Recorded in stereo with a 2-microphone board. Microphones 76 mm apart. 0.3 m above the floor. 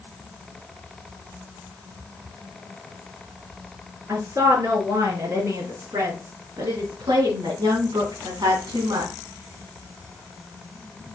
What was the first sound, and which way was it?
A woman speaking, 40° right (ahead or behind).